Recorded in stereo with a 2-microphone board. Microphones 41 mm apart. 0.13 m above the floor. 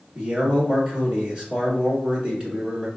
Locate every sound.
0.1 s a man speaking: 20° right (ahead or behind), 1.3 m